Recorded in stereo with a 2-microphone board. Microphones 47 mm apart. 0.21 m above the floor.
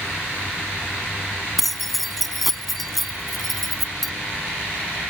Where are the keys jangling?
Centre (ahead or behind).